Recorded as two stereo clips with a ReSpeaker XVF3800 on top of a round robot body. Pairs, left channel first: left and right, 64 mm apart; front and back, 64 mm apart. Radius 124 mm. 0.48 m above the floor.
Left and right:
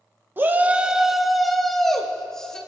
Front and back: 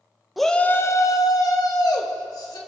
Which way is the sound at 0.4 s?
95° right.